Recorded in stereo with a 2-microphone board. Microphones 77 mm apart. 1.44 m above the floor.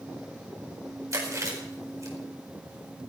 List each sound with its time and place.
1.1 s chewing: 45° right (ahead or behind), 5 m